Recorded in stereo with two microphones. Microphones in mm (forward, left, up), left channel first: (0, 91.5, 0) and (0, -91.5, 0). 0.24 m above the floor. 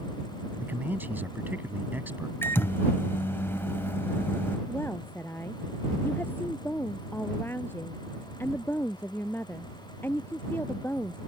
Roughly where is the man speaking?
Centre.